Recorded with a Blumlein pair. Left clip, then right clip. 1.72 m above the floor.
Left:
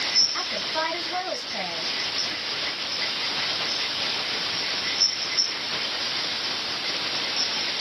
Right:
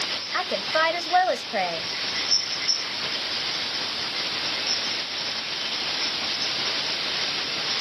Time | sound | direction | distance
0.3 | a woman speaking | 40° right | 0.8 m